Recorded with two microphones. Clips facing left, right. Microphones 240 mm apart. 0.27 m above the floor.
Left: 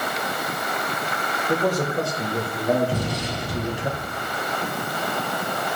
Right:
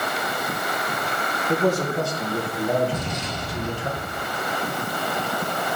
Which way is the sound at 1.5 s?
15° left (ahead or behind).